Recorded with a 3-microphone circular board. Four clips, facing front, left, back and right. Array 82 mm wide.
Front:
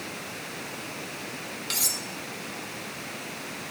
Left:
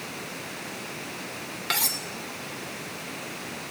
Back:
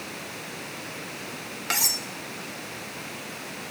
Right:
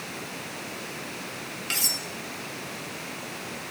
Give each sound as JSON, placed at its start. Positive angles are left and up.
{"t": 1.7, "sound": "cutlery clinking", "azimuth_deg": 135, "distance_m": 4.0}